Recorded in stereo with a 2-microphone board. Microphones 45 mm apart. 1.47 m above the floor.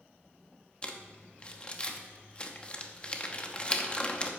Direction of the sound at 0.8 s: 25° left (ahead or behind).